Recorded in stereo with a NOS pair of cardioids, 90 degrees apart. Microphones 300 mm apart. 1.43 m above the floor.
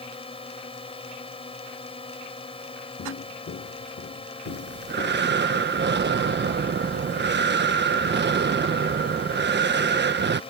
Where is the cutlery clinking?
I don't hear cutlery clinking.